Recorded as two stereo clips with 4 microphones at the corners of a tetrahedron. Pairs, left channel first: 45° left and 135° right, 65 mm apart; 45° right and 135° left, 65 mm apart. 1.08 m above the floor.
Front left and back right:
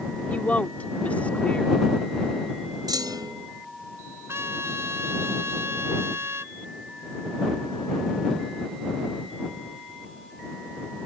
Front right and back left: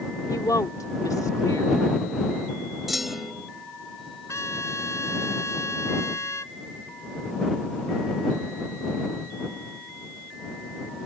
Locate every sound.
0.3 s a woman speaking: 20° right
2.9 s a clunk: 135° right
4.3 s a trumpet: 85° right